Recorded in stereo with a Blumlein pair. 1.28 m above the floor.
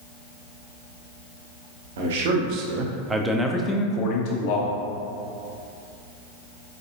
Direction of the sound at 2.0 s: 55° right.